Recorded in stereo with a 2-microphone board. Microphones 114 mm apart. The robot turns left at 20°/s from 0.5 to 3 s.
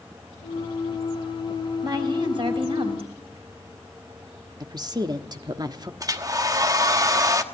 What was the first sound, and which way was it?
A woman speaking, 35° right (ahead or behind).